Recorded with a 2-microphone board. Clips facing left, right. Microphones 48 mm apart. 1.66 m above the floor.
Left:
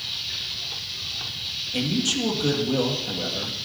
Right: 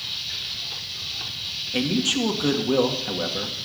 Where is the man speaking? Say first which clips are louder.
Right 2 dB; 25° right (ahead or behind), 2 m.